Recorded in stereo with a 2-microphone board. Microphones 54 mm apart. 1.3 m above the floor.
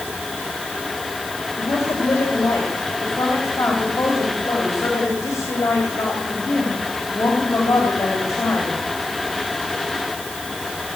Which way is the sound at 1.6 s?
85° left.